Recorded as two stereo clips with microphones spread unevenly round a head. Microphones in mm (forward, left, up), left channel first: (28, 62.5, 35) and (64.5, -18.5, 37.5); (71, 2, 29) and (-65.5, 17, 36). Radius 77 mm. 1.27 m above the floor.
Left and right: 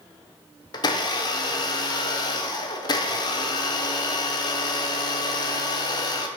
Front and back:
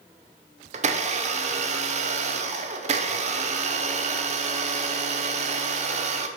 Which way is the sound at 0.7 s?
145° left.